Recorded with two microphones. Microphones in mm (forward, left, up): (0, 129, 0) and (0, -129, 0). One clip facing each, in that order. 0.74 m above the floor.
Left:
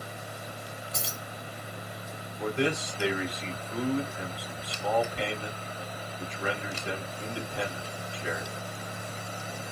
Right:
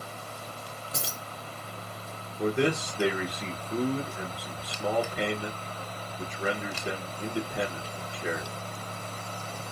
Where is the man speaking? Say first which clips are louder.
Right 3 dB; 50° right (ahead or behind), 1.0 m.